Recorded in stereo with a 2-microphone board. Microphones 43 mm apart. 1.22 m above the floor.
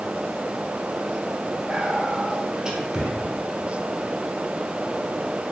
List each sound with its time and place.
1.7 s whispering: 20° right (ahead or behind), 0.8 m